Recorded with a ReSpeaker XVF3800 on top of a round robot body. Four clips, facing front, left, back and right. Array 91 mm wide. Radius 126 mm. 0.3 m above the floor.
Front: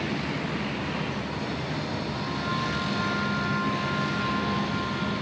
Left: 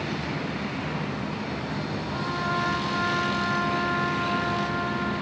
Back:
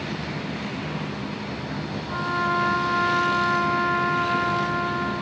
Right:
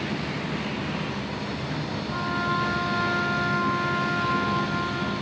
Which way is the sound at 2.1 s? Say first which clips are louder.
Right 2 dB, back 6 dB; 150° right.